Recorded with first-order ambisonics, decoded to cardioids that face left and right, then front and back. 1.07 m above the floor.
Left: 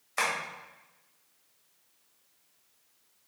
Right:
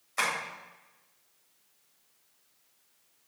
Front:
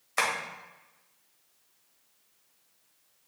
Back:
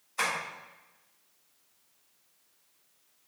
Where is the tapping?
15° left, 2.5 m.